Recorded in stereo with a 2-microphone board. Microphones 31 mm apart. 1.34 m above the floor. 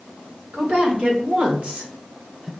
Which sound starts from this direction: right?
A woman speaking, at 0.5 s.